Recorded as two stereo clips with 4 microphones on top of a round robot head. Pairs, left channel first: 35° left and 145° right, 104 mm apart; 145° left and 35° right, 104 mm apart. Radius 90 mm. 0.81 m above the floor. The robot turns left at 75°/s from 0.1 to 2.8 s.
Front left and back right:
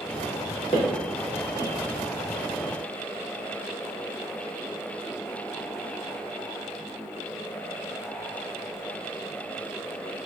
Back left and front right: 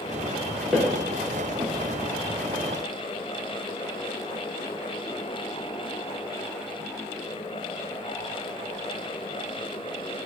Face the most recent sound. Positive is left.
turn(degrees=-100)